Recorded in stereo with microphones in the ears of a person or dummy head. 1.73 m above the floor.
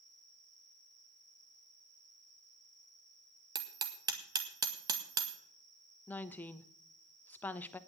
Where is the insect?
5° left (ahead or behind), 3 m.